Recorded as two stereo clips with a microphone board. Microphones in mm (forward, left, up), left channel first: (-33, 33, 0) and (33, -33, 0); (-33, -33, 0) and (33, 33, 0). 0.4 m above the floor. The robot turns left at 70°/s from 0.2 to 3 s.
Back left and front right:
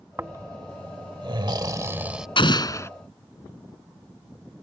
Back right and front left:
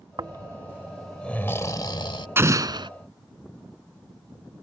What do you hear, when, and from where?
0.2 s snoring: 15° left; by 2.3 s 130° right
2.4 s an explosion: 110° left; by 2.9 s 75° left